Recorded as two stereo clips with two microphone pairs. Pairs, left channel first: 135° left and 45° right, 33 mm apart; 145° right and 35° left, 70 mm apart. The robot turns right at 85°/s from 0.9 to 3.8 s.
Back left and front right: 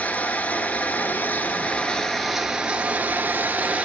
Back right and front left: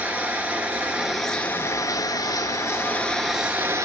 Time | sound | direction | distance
0.0 | running water | 105° left | 0.8 m